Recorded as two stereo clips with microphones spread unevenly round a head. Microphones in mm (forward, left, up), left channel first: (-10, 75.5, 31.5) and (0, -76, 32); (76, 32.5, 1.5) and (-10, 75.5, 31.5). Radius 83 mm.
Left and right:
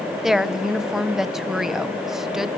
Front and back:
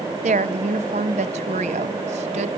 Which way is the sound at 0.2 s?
175° right.